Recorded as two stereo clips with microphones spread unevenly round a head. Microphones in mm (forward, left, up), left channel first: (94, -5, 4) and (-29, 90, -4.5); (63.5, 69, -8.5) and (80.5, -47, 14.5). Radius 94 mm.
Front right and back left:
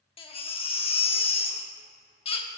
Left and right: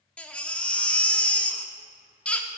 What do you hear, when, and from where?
0.2 s a baby crying: 15° left, 1.2 m